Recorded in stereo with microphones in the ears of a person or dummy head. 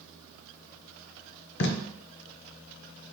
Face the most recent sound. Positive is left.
turn(degrees=55)  # may be behind; listen again after turning